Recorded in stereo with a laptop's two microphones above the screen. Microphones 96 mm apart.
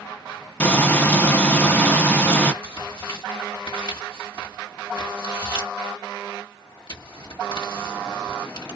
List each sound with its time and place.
0.6 s frying: 20° left (ahead or behind), 0.7 m
2.6 s tearing paper: 60° left (ahead or behind), 1.4 m